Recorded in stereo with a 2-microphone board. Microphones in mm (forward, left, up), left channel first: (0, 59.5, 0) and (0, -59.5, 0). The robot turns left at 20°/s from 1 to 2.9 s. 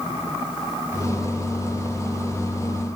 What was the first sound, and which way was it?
Only background noise.